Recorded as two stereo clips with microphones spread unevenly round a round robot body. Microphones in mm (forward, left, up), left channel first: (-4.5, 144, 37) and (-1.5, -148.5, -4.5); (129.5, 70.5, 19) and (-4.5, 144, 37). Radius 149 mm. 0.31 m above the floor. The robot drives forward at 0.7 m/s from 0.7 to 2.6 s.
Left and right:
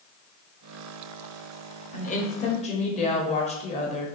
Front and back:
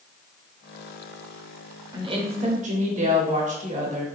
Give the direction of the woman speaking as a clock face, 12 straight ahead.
8 o'clock.